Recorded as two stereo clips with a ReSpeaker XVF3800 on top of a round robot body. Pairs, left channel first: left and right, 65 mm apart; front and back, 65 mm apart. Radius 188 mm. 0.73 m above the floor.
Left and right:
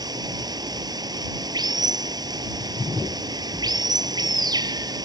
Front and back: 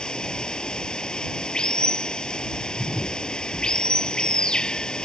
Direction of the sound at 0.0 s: 80° right.